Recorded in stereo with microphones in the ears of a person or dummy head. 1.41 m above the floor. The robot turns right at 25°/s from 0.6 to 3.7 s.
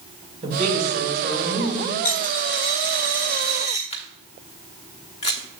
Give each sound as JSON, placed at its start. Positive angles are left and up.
{"t": 0.4, "sound": "a woman speaking", "azimuth_deg": -35, "distance_m": 1.8}
{"t": 2.0, "sound": "a dropped coin", "azimuth_deg": 90, "distance_m": 1.3}
{"t": 3.9, "sound": "a camera shutter", "side_deg": 30, "distance_m": 0.9}